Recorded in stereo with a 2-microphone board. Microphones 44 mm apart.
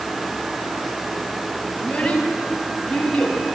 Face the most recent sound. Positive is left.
turn(degrees=20)  # may be behind; listen again after turning